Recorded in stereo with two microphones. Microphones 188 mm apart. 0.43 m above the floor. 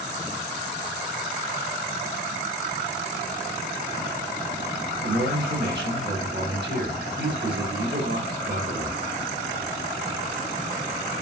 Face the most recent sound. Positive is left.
turn(degrees=-70)  # may be behind; listen again after turning